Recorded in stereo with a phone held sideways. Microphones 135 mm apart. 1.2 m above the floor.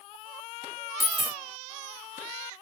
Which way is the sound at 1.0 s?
35° left (ahead or behind).